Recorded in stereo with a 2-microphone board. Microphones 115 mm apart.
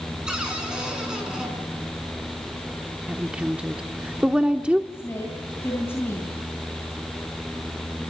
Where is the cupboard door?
5° right (ahead or behind), 5 m.